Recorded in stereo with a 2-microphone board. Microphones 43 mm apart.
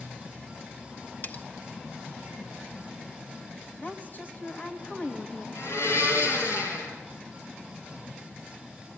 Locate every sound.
1.2 s cutlery clinking: 45° left (ahead or behind), 0.8 m
3.8 s a woman speaking: 45° left (ahead or behind), 2 m
5.5 s a blender: 75° left (ahead or behind), 4.5 m